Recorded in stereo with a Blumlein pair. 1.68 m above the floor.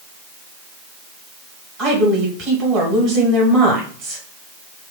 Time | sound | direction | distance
1.8 | a woman speaking | 35° right | 1.4 m